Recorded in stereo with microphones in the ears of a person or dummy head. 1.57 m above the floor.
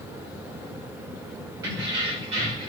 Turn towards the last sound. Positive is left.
turn(degrees=-40)  # may be behind; listen again after turning